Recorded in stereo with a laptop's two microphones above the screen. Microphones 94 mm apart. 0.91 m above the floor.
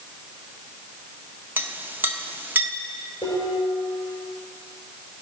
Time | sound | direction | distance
1.6 | a clink | 20° right (ahead or behind) | 0.5 m
3.2 | dishes clattering | 90° left | 7.5 m